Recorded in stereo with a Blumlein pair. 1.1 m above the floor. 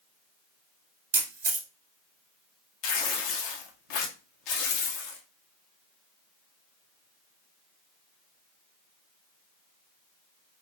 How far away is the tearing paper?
About 0.6 m.